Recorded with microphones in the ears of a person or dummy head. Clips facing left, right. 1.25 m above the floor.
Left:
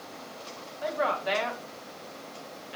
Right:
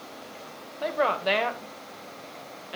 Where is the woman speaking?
55° right (ahead or behind), 1.3 m.